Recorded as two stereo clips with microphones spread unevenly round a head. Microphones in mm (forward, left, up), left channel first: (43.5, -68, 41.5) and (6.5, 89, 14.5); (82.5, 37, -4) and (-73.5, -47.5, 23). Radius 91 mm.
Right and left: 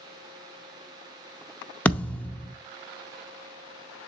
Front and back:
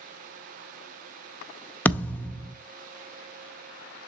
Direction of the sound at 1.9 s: 60° right.